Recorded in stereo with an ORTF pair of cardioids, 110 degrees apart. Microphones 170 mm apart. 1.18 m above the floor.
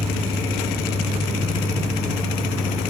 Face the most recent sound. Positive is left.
turn(degrees=-20)